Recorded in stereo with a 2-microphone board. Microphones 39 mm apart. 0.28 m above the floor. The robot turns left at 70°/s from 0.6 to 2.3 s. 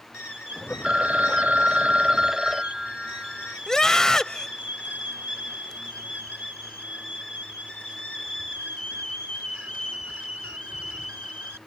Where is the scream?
15° left (ahead or behind).